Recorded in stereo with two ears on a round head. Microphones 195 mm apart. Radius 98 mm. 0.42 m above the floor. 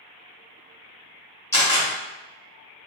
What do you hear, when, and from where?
1.5 s a camera shutter: 15° left (ahead or behind), 1.6 m